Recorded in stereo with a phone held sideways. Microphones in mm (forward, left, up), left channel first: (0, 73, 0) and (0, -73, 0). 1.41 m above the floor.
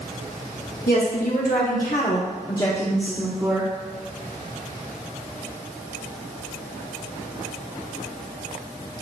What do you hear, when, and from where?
0.9 s a woman speaking: 80° left, 2 m; by 3.7 s 25° right (ahead or behind), 1.6 m